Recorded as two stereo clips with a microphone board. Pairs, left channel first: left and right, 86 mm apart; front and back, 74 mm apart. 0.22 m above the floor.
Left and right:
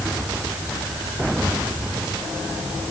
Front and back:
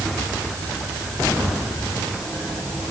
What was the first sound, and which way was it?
Only background noise.